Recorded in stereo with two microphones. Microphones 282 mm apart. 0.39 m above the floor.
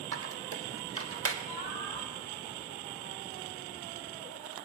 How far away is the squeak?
About 0.7 m.